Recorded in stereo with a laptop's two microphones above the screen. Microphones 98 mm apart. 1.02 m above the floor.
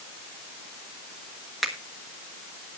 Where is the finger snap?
Centre (ahead or behind), 1.4 m.